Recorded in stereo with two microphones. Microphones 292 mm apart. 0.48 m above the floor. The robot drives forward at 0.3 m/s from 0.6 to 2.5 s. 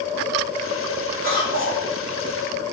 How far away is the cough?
About 1.8 m.